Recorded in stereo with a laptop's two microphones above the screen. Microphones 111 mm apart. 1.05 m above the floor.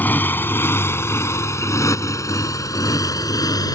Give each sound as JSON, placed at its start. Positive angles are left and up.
{"t": 0.0, "sound": "a motorcycle", "side_deg": 15}